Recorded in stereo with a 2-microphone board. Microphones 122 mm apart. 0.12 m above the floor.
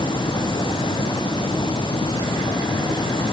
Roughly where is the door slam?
I don't hear a door slam.